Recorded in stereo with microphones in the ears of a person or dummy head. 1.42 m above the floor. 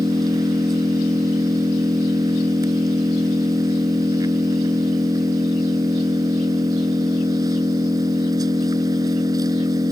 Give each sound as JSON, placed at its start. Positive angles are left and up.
{"t": 0.0, "sound": "an engine running", "side_deg": -15}